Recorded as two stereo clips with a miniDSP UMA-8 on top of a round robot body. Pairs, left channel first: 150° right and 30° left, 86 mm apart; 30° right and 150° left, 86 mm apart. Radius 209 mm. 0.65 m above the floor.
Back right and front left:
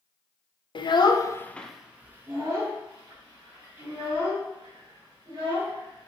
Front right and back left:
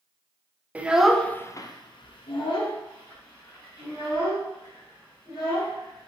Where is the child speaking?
135° right, 0.6 m; by 6.1 s 5° right, 3 m.